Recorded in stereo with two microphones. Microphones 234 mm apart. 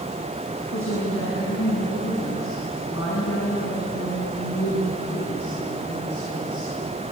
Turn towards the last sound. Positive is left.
turn(degrees=75)  # may be behind; listen again after turning